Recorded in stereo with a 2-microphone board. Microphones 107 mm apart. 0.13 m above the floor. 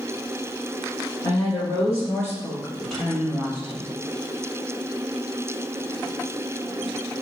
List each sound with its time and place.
1.2 s a woman speaking: 40° left (ahead or behind), 1.9 m; by 3.9 s 20° right (ahead or behind), 1.3 m